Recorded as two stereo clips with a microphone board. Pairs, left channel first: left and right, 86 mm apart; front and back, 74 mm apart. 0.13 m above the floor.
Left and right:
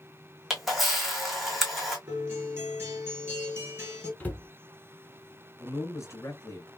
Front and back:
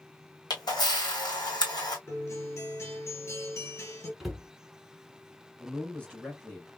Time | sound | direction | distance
0.5 | a camera shutter | straight ahead | 1.2 m
2.1 | a guitar | 40° right | 1.7 m
4.2 | a cupboard door | 100° left | 0.8 m
5.6 | a man speaking | 65° left | 1.8 m